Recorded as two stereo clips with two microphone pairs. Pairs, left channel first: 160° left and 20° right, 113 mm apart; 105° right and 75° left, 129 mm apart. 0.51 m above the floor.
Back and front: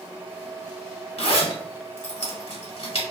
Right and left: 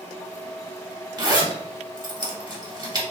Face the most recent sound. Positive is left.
turn(degrees=130)